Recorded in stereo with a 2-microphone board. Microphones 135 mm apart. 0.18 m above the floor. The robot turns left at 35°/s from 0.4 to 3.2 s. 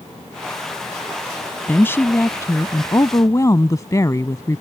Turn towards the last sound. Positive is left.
turn(degrees=25)  # may be behind; listen again after turning